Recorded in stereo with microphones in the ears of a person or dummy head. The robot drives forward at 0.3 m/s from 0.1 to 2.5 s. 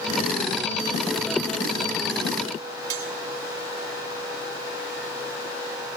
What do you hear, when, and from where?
2.9 s cutlery clinking: 65° right (ahead or behind), 3.5 m